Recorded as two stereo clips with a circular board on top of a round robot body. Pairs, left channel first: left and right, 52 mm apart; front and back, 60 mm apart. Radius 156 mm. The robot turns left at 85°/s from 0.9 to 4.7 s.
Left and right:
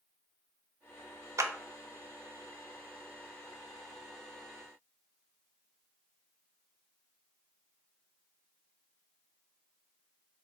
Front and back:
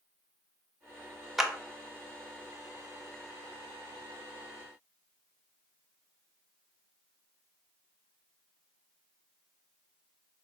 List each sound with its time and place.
1.4 s a clap: 95° right, 0.6 m; by 1.5 s 105° right, 0.6 m